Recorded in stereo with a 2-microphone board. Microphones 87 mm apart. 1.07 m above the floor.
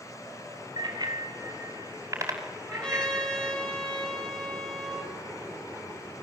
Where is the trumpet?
10° left (ahead or behind), 7 m.